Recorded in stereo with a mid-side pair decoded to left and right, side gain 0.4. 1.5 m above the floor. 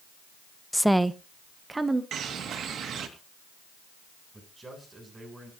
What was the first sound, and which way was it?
A woman speaking, 5° left.